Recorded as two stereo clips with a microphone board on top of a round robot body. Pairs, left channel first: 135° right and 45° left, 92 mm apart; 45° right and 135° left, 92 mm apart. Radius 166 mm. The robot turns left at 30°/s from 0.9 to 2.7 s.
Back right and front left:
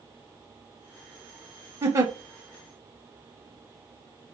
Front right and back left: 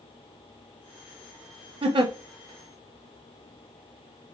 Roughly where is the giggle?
Left.